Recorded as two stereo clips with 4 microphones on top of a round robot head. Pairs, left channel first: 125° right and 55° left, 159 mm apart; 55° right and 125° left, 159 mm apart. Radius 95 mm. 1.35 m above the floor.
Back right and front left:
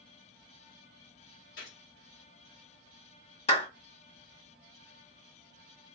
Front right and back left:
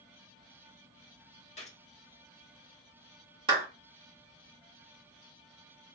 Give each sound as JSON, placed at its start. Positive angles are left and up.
{"t": 1.6, "sound": "a gunshot", "azimuth_deg": -105, "distance_m": 1.3}
{"t": 3.5, "sound": "a clap", "azimuth_deg": -175, "distance_m": 1.5}